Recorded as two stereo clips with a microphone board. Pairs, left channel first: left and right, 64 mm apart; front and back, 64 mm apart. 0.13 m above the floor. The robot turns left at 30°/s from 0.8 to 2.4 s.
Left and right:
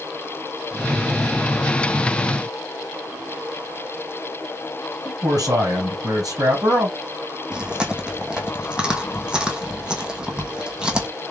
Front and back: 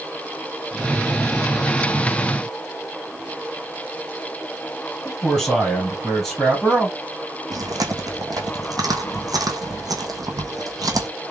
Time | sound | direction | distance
5.0 | a man speaking | 85° right | 3 m
7.5 | chewing | 165° right | 1.2 m